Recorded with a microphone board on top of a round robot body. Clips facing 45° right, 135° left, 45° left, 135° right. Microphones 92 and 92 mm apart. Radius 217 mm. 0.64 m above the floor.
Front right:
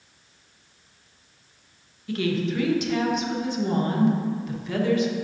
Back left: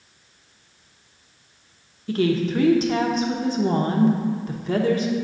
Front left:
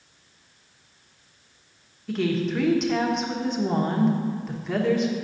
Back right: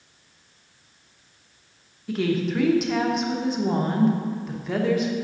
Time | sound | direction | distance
2.1 | a woman speaking | 135° left | 1.2 m